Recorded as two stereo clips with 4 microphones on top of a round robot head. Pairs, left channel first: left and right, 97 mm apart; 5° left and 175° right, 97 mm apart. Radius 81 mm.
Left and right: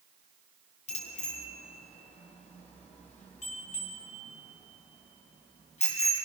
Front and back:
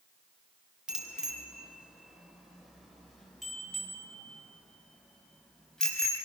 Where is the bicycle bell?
100° left, 3 m; by 6.2 s 90° left, 6 m.